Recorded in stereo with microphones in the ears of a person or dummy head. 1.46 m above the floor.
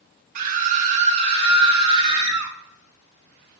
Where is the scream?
55° right (ahead or behind), 1.5 m; by 2.5 s 30° right (ahead or behind), 4.5 m.